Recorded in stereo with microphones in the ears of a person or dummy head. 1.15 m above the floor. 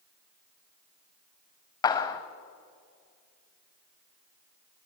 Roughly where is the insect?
No insect in this recording.